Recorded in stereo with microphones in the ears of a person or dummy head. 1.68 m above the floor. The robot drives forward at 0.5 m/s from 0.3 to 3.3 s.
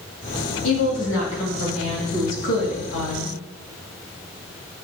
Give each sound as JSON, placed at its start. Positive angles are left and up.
{"t": 0.6, "sound": "a woman speaking", "side_deg": 80, "distance_m": 3.0}